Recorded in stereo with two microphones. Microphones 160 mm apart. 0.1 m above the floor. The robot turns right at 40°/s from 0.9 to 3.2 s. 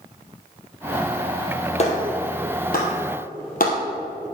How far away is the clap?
About 2.5 m.